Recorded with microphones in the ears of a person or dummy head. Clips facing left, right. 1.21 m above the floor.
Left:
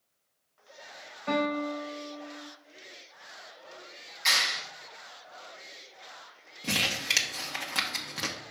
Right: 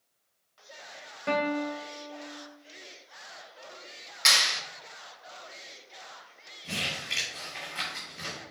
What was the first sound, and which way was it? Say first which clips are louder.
A guitar: even; 40° right (ahead or behind).